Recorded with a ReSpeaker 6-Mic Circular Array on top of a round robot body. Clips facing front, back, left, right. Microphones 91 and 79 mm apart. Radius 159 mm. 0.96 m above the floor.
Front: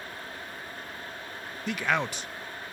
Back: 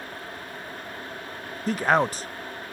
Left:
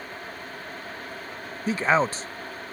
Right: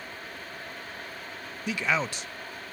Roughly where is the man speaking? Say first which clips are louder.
Back 7 dB, left 6 dB; behind left.